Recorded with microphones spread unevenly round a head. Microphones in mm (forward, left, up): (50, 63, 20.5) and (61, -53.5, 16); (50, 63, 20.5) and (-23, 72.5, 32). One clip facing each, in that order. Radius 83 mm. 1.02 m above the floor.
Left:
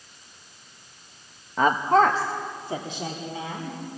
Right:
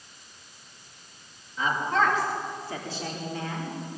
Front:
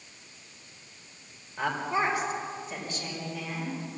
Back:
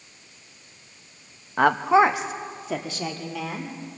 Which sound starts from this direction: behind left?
A woman speaking, at 1.6 s.